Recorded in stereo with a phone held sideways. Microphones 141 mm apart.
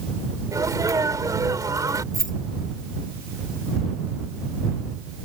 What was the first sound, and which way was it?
A sneeze, 25° right (ahead or behind).